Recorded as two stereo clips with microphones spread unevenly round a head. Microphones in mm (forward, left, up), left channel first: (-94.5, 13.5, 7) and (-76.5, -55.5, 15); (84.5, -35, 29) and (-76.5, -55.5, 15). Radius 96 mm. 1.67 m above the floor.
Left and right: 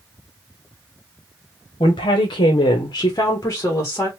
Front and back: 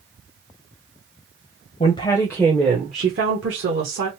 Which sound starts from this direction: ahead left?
A woman speaking, at 1.8 s.